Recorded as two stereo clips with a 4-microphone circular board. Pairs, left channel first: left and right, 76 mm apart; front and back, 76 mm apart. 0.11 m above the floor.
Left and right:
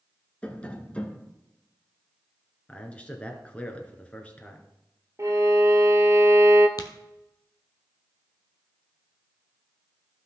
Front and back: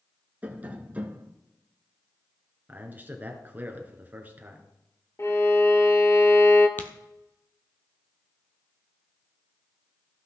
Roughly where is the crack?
Ahead left.